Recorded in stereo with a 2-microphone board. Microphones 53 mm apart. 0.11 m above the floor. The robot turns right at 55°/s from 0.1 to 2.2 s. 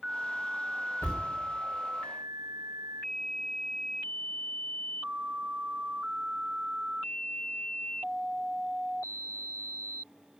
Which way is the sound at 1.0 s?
60° left (ahead or behind).